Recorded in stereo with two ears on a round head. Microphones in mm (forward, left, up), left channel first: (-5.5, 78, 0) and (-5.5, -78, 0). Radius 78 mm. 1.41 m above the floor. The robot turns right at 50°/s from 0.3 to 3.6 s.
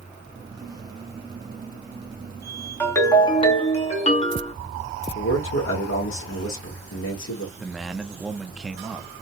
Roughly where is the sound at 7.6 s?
Centre.